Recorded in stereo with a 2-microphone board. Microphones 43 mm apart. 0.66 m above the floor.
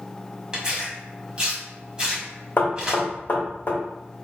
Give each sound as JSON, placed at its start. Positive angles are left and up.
{"t": 0.5, "sound": "tearing paper", "side_deg": -20, "distance_m": 1.5}
{"t": 2.6, "sound": "knocking", "side_deg": 60, "distance_m": 1.6}